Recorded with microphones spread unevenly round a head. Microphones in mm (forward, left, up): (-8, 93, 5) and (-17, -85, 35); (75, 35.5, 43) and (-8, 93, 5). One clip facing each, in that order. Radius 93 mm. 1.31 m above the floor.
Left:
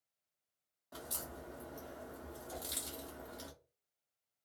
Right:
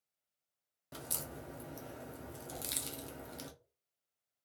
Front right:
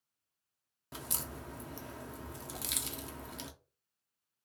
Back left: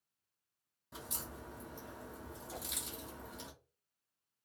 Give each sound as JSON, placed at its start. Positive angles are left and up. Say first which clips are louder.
{"t": 0.9, "sound": "a crack", "louder": "right 1 dB, front right 3 dB", "azimuth_deg": -30, "distance_m": 0.5}
{"t": 2.5, "sound": "a whoosh", "louder": "left 1 dB, back left 2 dB", "azimuth_deg": 160, "distance_m": 1.0}